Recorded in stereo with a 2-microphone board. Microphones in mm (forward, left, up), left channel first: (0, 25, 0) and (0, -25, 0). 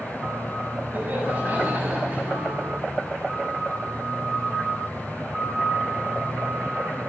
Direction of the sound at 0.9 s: 35° right (ahead or behind).